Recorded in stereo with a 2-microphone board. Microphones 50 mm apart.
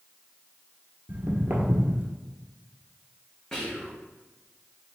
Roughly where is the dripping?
No dripping in this recording.